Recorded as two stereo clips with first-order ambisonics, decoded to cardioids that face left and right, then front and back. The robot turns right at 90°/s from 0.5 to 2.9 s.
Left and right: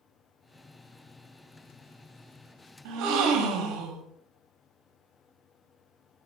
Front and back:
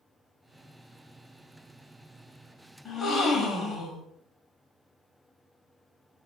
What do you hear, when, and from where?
2.9 s a gasp: 75° right, 0.7 m; by 4.1 s 70° right, 0.7 m